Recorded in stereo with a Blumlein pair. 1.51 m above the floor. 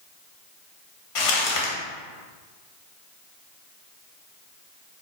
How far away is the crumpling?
About 0.9 m.